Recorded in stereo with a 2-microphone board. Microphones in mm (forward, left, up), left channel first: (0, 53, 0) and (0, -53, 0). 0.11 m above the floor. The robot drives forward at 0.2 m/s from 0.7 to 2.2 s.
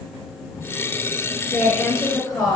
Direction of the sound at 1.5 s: 30° left (ahead or behind).